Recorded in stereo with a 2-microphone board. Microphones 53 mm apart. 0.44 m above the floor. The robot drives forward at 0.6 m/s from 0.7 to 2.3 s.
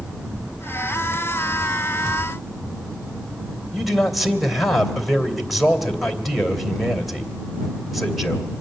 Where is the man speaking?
Centre (ahead or behind), 2.5 m.